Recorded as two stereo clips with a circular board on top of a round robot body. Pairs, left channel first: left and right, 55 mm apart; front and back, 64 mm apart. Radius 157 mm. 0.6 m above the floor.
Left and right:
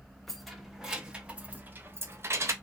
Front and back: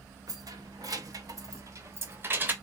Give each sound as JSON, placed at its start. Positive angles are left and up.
{"t": 0.3, "sound": "keys jangling", "azimuth_deg": 175, "distance_m": 1.4}